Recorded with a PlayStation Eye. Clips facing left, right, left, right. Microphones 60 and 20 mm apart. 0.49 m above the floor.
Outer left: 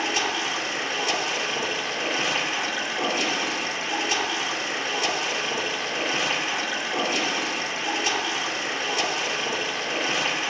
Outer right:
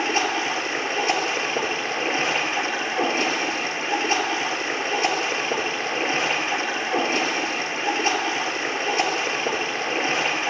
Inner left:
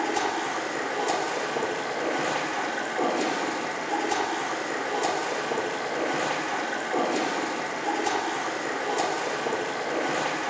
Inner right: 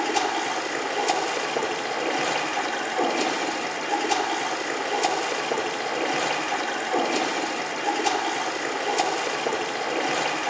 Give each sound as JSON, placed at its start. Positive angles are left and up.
{"t": 0.0, "sound": "running water", "side_deg": -35, "distance_m": 3.0}